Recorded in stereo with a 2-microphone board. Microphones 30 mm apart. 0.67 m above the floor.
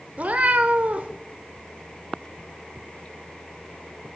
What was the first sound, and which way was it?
A cat meowing, 55° right (ahead or behind).